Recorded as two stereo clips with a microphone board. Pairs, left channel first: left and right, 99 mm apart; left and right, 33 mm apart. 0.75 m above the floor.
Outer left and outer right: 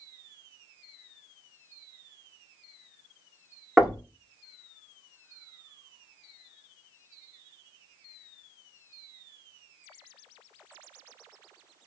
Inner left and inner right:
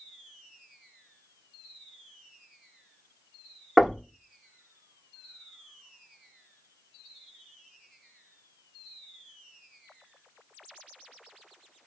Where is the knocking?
5° right (ahead or behind), 1.3 m.